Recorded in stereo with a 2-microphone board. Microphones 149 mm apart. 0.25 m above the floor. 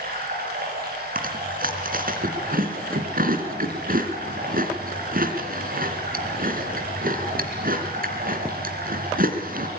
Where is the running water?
75° right (ahead or behind), 8 m.